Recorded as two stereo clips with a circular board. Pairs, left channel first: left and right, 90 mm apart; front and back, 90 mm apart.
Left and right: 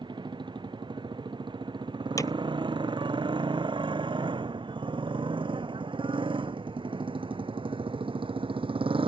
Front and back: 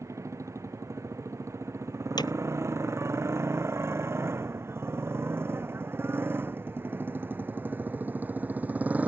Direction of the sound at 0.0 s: 125° right.